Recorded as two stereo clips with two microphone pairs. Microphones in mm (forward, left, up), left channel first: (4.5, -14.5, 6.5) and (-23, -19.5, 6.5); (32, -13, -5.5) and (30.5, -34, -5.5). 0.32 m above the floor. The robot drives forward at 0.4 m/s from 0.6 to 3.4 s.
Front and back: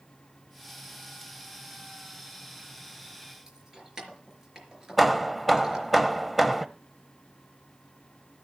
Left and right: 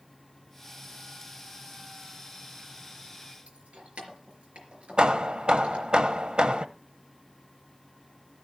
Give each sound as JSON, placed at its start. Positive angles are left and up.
{"t": 3.5, "sound": "keys jangling", "azimuth_deg": -100, "distance_m": 4.0}
{"t": 5.0, "sound": "hammering", "azimuth_deg": -85, "distance_m": 0.8}